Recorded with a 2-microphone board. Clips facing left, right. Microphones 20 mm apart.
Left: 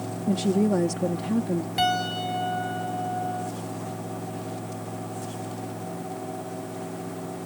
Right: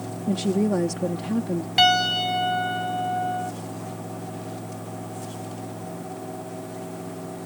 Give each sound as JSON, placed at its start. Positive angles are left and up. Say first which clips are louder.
{"t": 0.3, "sound": "a woman speaking", "louder": "even", "side_deg": -10}
{"t": 1.8, "sound": "a piano", "louder": "right 8 dB", "side_deg": -40}